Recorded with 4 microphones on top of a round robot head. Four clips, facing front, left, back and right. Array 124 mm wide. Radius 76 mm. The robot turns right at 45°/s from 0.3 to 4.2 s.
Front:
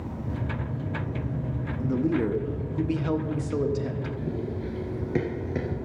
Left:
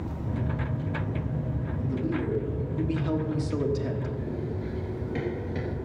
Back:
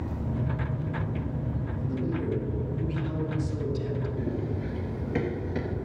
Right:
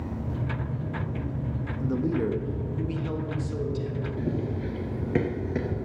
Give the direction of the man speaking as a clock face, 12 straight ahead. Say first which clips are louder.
Right 4 dB, front 7 dB; 2 o'clock.